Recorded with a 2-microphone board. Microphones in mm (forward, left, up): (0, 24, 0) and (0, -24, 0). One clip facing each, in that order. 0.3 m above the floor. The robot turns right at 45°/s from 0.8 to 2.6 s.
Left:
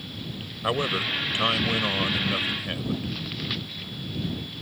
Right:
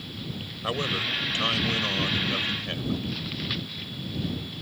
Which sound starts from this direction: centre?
A man speaking, at 0.6 s.